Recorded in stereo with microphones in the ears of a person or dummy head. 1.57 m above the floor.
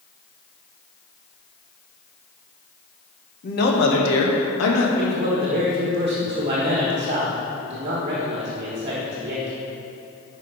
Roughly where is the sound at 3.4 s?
Left.